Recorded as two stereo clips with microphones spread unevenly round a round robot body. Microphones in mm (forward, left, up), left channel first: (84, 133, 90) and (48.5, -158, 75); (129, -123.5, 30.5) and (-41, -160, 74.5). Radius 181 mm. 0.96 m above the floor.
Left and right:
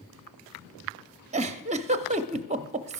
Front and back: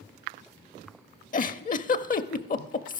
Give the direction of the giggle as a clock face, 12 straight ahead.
1 o'clock.